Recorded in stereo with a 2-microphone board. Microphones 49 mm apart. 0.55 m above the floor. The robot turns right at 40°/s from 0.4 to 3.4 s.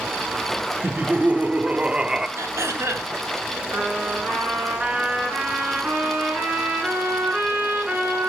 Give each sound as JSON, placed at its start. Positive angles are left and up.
{"t": 0.8, "sound": "laughter", "azimuth_deg": -80, "distance_m": 1.2}
{"t": 2.4, "sound": "throat clearing", "side_deg": -70, "distance_m": 3.5}
{"t": 3.7, "sound": "a trumpet", "side_deg": -30, "distance_m": 7.5}